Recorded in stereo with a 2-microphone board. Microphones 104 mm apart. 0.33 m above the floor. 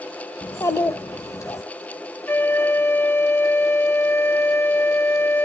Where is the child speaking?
30° left (ahead or behind), 0.6 m.